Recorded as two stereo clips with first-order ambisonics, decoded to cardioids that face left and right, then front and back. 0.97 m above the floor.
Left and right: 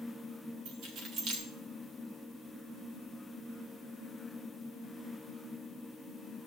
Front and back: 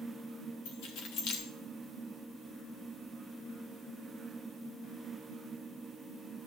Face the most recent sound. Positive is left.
turn(degrees=-40)